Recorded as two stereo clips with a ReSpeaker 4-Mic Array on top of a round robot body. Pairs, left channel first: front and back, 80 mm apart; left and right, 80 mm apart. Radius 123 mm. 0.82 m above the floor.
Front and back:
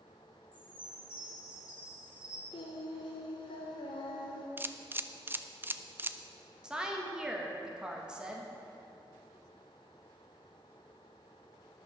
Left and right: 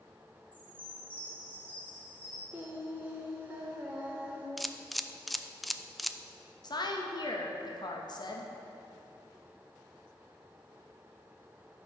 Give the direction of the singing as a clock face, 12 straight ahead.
1 o'clock.